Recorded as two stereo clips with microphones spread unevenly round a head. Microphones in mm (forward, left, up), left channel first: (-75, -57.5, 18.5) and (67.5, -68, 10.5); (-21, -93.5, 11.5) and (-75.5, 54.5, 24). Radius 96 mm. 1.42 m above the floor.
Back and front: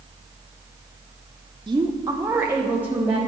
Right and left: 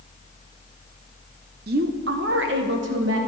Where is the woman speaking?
65° left, 0.6 m; by 3.2 s 80° left, 1.6 m.